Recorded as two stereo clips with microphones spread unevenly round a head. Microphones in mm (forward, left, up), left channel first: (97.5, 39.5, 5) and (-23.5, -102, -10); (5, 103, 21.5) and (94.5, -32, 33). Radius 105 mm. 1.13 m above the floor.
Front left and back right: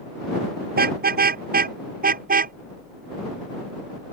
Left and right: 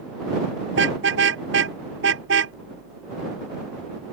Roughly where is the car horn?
Right.